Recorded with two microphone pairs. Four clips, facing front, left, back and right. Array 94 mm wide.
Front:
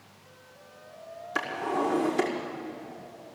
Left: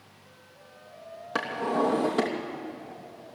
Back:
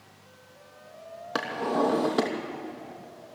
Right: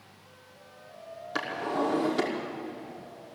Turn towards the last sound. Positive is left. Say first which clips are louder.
# left 3 dB, back 2 dB
turn(degrees=160)